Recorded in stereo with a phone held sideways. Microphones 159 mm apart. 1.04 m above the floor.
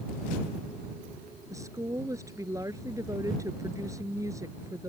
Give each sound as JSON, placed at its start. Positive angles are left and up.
{"t": 1.5, "sound": "a woman speaking", "side_deg": -20}